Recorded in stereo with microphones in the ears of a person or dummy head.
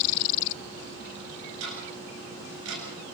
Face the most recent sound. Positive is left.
turn(degrees=-75)  # may be behind; listen again after turning